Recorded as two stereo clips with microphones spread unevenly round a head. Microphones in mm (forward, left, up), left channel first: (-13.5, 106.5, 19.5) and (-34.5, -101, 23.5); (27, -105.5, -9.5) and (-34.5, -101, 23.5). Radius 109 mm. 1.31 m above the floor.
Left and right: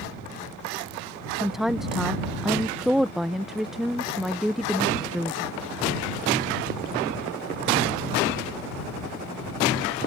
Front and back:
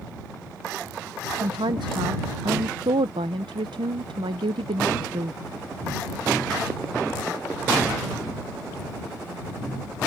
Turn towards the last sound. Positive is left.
turn(degrees=175)